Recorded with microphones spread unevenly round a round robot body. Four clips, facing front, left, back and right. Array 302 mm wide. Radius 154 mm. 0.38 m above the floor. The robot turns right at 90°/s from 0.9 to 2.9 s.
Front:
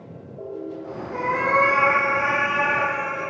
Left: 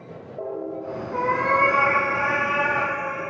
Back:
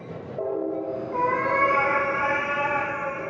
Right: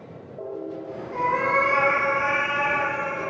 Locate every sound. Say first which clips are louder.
1.1 s a cat meowing: left 1 dB, front 2 dB; 45° left, 1.8 m; by 3.2 s 155° right, 1.8 m